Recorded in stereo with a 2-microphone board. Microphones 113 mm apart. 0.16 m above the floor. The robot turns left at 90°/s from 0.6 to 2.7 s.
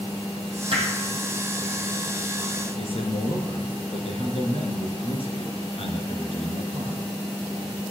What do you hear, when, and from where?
0.7 s hammering: 55° right (ahead or behind), 3 m; by 0.9 s 70° right (ahead or behind), 3 m
2.8 s a man speaking: 60° left (ahead or behind), 2 m